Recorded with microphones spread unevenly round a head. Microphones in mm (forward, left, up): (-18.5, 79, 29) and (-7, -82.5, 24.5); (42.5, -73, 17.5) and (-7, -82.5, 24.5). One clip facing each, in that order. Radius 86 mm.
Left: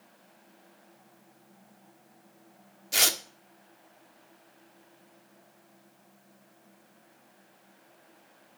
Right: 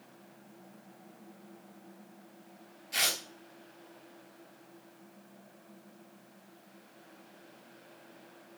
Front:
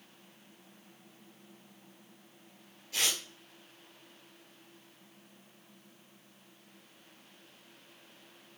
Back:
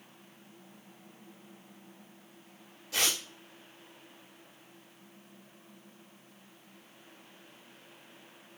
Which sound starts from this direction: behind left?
Tearing paper, at 2.9 s.